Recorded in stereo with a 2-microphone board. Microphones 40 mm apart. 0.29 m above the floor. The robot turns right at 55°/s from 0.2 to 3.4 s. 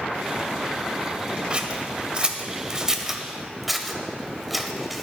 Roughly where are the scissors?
Right.